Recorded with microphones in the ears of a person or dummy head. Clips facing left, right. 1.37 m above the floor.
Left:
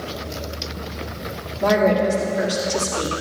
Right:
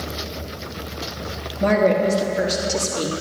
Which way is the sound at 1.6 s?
25° right (ahead or behind).